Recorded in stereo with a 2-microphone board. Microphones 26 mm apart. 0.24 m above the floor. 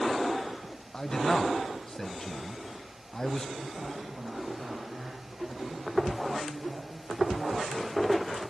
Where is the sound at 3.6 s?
65° right (ahead or behind), 9.5 m.